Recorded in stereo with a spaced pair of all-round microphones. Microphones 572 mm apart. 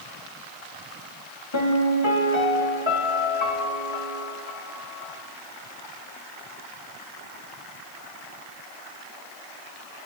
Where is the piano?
55° left (ahead or behind), 1.7 m.